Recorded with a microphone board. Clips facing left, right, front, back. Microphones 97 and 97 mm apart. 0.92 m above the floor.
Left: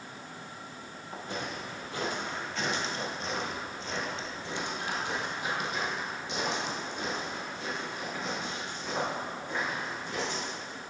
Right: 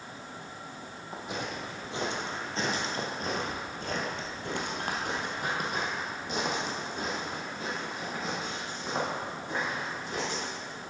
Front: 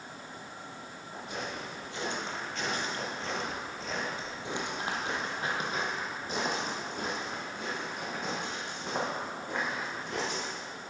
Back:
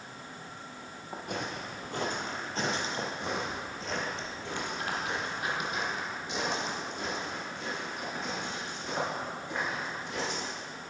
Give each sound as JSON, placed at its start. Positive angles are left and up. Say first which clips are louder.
{"t": 1.1, "sound": "footsteps", "louder": "right 1 dB, back 2 dB", "azimuth_deg": -165, "distance_m": 2.0}